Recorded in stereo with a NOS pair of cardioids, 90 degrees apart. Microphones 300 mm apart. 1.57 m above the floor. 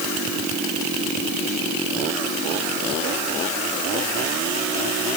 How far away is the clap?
No clap in this recording.